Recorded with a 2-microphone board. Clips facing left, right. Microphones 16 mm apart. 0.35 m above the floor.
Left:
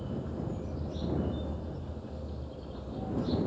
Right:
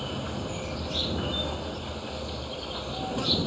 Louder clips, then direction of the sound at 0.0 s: Right 4 dB; 65° right (ahead or behind).